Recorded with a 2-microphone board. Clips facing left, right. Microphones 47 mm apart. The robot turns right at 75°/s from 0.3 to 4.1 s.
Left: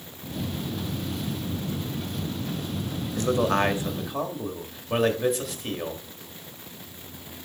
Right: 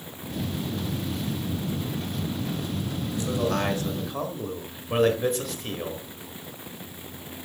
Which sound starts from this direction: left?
A man speaking, at 3.2 s.